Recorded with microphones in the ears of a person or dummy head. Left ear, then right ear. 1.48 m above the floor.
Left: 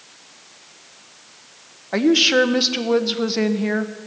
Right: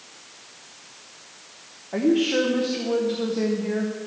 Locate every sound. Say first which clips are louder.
1.9 s a woman speaking: left 6 dB; 65° left (ahead or behind), 0.7 m